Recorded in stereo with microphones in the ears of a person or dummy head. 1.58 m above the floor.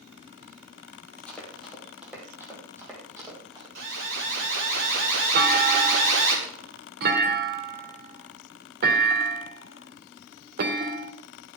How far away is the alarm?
About 4.5 m.